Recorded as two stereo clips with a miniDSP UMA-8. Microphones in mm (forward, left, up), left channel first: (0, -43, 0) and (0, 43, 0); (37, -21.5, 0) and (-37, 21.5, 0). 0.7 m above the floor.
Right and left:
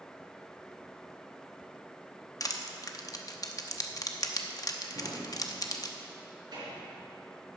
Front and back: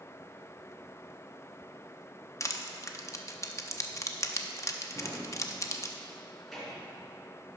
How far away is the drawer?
About 4 m.